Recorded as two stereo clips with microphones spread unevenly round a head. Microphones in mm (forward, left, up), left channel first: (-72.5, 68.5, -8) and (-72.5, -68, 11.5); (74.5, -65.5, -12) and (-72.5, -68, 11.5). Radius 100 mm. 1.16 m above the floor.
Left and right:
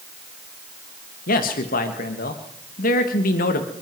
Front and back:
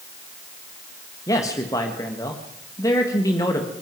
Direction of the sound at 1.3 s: 70° left.